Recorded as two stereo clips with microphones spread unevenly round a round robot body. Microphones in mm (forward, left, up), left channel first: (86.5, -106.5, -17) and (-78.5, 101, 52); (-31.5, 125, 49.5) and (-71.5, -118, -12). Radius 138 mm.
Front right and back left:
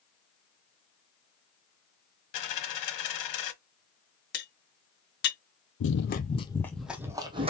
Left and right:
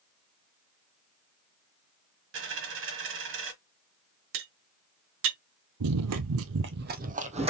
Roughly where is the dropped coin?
Ahead right.